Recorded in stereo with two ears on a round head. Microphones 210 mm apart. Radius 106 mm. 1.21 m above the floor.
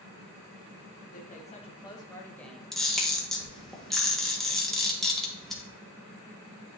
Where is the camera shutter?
Centre (ahead or behind), 1.6 m.